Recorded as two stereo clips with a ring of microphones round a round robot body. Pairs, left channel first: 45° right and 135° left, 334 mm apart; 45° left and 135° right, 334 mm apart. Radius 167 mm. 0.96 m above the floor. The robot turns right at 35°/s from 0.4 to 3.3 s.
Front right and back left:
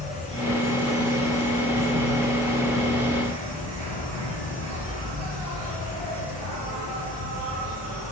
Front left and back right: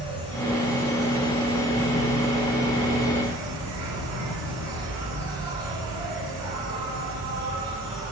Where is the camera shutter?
I don't hear a camera shutter.